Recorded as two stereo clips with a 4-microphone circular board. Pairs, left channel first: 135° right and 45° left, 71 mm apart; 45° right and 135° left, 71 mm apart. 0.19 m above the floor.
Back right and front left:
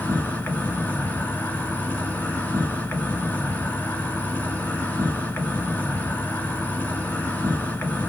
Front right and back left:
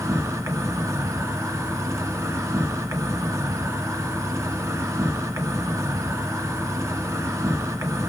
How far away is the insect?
About 1.5 m.